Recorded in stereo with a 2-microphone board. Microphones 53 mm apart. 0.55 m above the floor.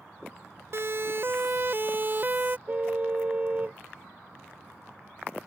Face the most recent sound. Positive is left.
turn(degrees=-30)  # may be behind; listen again after turning